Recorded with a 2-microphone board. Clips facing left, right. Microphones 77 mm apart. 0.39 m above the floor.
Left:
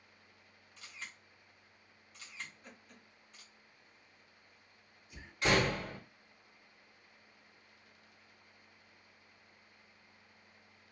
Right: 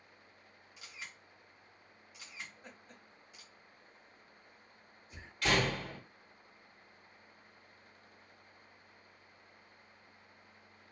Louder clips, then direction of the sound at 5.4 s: Left 1 dB; 20° left (ahead or behind).